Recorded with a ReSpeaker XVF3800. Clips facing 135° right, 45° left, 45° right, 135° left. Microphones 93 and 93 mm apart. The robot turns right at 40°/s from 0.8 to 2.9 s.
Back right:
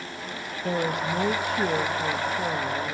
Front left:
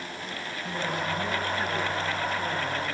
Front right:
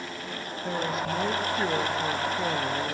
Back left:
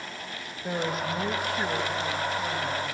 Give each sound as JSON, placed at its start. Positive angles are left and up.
{"t": 0.6, "sound": "a woman speaking", "azimuth_deg": -145, "distance_m": 4.0}